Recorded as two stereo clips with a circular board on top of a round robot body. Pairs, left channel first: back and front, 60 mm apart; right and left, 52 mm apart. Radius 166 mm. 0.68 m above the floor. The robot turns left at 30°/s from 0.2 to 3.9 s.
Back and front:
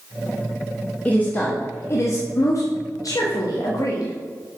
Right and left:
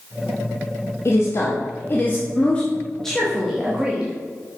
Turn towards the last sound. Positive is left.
turn(degrees=165)